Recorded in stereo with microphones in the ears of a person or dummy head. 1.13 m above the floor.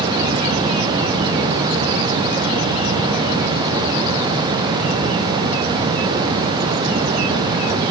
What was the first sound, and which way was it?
Only background noise.